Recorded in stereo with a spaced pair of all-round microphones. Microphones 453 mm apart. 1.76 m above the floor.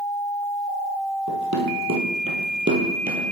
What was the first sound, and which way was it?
Running footsteps, 40° right (ahead or behind).